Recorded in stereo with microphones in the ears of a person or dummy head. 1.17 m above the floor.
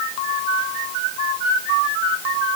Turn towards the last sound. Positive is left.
No sound to turn to.